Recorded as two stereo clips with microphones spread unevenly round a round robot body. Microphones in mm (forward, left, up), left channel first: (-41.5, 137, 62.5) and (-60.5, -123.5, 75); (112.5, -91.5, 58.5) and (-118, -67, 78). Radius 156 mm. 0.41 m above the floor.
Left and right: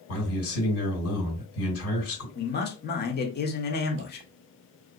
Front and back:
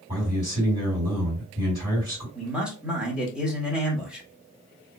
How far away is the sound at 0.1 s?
About 2.0 m.